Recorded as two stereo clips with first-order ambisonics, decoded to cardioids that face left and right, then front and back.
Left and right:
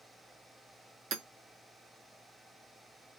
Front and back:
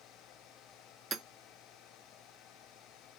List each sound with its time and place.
1.1 s hammering: 120° right, 0.5 m